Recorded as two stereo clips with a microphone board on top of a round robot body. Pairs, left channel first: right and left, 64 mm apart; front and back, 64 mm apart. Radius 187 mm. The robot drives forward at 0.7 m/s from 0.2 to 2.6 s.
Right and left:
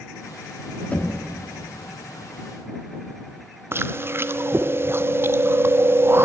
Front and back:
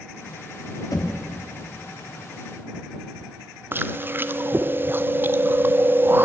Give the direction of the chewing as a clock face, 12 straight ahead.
8 o'clock.